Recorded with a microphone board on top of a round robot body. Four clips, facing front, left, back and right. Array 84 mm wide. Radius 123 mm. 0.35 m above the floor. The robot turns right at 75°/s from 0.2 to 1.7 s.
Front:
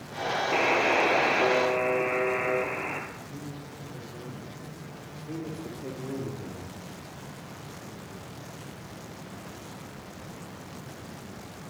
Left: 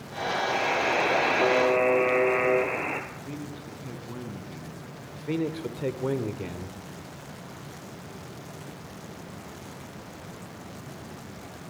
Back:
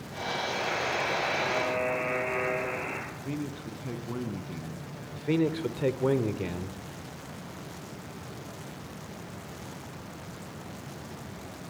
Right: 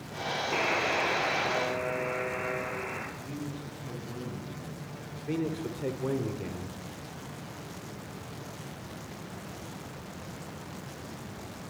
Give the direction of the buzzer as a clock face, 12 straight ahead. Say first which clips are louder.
Left 2 dB, front 9 dB; 12 o'clock.